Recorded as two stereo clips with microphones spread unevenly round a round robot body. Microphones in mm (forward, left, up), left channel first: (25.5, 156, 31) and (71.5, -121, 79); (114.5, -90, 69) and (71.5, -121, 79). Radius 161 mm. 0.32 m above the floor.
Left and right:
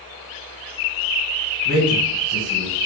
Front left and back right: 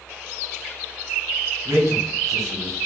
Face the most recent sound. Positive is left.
turn(degrees=-145)